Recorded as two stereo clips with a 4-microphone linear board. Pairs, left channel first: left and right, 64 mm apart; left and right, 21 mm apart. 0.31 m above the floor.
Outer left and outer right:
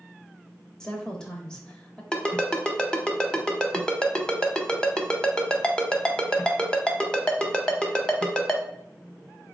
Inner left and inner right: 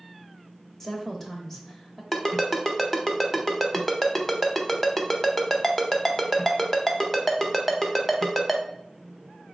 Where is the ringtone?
15° left (ahead or behind), 0.7 m.